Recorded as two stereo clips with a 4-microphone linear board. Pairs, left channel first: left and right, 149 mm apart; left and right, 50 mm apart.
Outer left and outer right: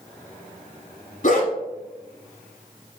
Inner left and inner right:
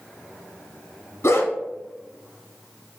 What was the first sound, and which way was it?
A dog barking, 65° left (ahead or behind).